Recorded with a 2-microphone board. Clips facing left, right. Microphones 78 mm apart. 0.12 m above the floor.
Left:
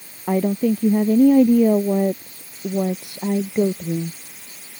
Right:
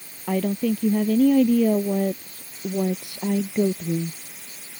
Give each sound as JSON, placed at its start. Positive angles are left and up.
{"t": 0.3, "sound": "a woman speaking", "side_deg": 20}